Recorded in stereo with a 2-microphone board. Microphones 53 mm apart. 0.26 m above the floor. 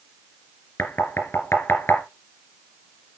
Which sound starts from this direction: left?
Knocking, at 0.8 s.